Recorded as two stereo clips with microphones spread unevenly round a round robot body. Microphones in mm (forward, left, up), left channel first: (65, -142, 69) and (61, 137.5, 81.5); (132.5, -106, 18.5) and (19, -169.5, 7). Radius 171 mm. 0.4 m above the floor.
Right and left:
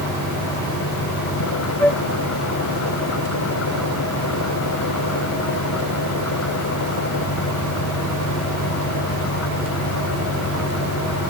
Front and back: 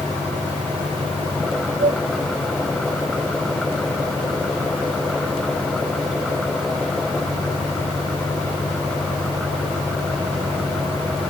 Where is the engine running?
60° right.